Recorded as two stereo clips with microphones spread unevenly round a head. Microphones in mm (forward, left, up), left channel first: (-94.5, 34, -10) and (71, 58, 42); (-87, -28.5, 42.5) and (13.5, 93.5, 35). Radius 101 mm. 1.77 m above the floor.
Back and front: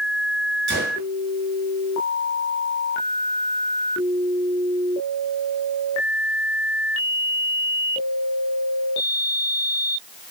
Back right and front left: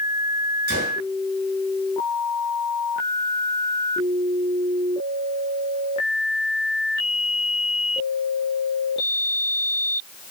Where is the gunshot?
15° left, 9.5 m.